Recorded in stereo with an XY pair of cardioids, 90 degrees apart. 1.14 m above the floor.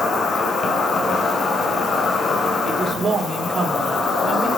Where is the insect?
60° left, 2.5 m.